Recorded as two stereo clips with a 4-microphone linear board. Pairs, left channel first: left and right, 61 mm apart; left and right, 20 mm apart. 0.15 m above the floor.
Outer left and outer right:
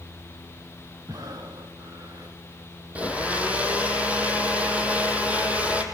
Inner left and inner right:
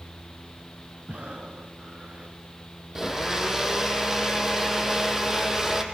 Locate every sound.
1.1 s breathing: 65° right (ahead or behind), 3 m
3.0 s a blender: 20° right (ahead or behind), 2.5 m